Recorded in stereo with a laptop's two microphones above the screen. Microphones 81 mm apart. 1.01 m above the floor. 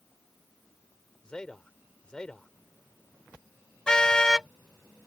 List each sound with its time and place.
1.2 s a man speaking: 10° left (ahead or behind)
3.9 s a car horn: 10° left (ahead or behind)